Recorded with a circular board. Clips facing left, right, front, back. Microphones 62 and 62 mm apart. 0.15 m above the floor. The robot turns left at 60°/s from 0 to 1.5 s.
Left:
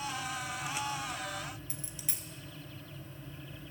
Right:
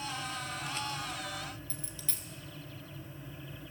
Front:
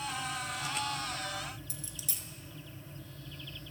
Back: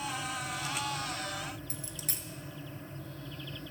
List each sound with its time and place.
1.7 s a dropped coin: 160° left, 1.0 m